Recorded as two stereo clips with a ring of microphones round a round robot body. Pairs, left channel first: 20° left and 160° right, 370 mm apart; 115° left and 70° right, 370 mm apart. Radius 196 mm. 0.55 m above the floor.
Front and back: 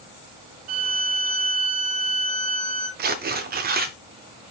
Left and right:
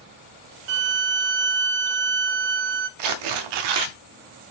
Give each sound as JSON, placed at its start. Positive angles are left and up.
{"t": 0.7, "sound": "a violin", "azimuth_deg": -90, "distance_m": 0.5}
{"t": 3.0, "sound": "tearing paper", "azimuth_deg": -90, "distance_m": 0.5}